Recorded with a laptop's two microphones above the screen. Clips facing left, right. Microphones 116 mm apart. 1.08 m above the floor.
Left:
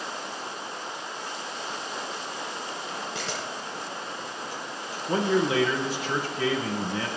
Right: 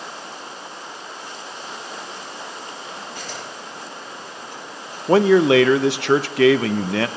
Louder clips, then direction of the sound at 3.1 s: Even; 80° left.